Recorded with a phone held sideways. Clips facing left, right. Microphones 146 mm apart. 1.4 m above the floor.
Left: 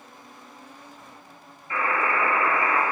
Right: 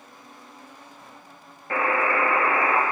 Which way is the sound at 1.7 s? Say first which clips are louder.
Right 2 dB; 60° right (ahead or behind).